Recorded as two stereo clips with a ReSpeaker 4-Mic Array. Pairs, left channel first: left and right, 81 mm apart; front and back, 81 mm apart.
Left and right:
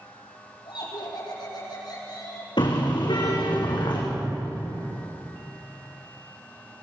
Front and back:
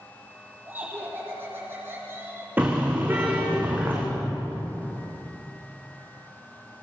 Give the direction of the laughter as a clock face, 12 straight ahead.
8 o'clock.